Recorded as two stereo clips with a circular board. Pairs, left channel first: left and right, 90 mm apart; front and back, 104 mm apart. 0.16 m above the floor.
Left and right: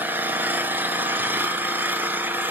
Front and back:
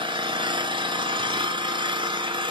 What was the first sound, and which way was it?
An engine running, 155° right.